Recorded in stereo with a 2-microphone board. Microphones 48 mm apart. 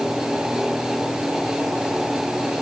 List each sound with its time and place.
Only background noise.